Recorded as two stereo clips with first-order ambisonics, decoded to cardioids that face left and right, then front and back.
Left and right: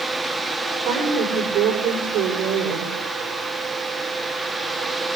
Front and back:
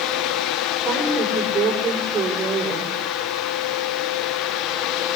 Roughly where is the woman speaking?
Behind right.